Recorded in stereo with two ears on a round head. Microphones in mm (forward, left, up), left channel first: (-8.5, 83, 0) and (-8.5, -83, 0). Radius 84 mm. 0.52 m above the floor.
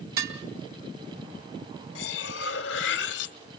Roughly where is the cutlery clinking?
Left.